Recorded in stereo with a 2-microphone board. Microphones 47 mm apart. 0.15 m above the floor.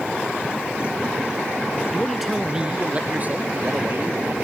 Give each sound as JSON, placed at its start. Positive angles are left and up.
{"t": 1.9, "sound": "a man speaking", "side_deg": 10}